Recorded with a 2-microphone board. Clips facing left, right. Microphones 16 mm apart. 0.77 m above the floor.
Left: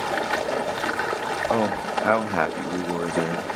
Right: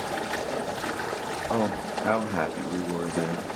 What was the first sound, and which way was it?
Running water, 50° left (ahead or behind).